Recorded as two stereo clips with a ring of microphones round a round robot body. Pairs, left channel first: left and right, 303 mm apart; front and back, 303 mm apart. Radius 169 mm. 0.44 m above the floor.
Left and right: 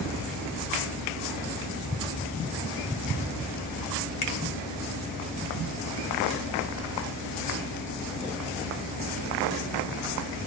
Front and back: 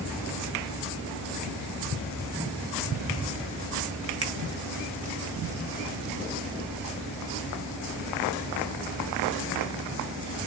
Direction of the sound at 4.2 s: 140° left.